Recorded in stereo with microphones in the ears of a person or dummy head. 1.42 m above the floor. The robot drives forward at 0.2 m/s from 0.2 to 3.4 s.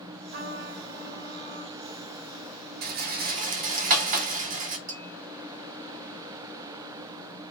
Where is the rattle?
55° right (ahead or behind), 0.6 m; by 4.8 s 50° right (ahead or behind), 0.7 m.